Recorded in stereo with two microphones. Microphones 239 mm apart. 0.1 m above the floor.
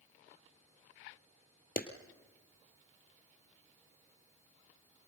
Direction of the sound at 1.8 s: 40° left (ahead or behind).